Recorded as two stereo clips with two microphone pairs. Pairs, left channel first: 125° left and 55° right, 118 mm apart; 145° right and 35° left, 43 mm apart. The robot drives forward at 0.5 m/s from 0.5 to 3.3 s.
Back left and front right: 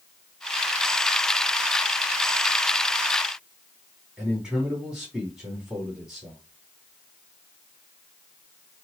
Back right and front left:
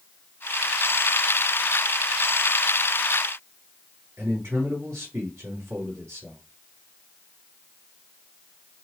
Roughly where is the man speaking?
Ahead.